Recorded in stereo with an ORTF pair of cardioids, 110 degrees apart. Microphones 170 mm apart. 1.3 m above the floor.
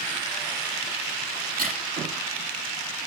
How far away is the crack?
About 7 m.